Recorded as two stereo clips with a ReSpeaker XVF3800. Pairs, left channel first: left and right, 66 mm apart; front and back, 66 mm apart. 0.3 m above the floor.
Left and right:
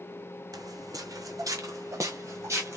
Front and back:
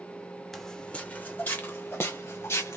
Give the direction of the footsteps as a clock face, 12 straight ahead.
3 o'clock.